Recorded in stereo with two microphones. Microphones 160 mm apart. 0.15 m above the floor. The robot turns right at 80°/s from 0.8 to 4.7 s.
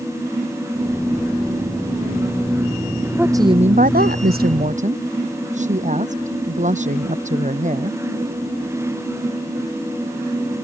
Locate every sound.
3.1 s a woman speaking: 175° right; by 8.0 s 50° right